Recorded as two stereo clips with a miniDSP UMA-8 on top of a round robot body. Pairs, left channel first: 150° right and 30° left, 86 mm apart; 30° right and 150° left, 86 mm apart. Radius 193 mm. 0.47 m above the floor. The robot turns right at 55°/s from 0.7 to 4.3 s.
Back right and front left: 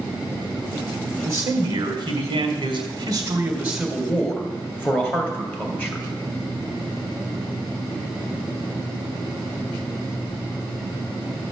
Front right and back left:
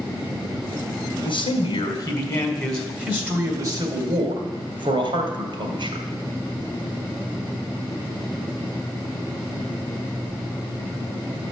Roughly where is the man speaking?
Ahead right.